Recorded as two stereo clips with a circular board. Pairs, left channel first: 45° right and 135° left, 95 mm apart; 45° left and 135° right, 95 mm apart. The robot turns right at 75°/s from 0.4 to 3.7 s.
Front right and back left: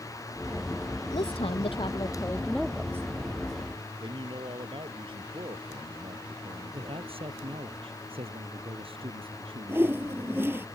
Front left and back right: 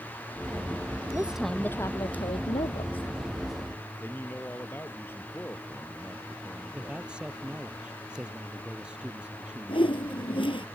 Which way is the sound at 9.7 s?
70° left.